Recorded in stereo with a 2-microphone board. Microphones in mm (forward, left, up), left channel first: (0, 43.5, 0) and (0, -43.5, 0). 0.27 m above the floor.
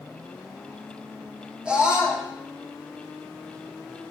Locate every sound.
1.6 s a scream: 10° right (ahead or behind), 6 m